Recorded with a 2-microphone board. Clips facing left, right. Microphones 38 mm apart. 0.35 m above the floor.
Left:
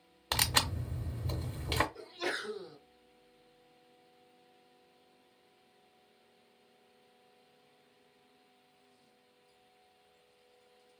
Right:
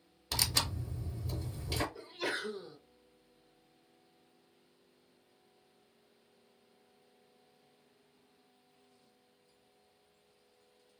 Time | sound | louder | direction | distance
0.3 | tearing paper | left 4 dB | 45° left (ahead or behind) | 0.7 m
1.9 | a sneeze | even | 20° right (ahead or behind) | 1.0 m